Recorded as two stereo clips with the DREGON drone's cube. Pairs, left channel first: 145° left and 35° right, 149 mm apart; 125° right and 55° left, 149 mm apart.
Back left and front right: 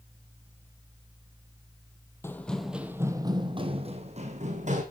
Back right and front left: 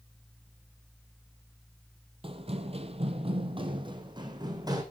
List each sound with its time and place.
2.2 s running footsteps: 80° left, 1.3 m; by 4.8 s 5° right, 2.5 m